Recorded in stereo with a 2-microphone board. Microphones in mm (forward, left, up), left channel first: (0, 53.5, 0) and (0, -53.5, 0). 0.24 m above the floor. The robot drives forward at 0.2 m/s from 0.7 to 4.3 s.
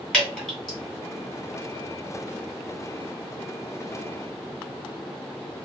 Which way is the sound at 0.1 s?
5° left (ahead or behind).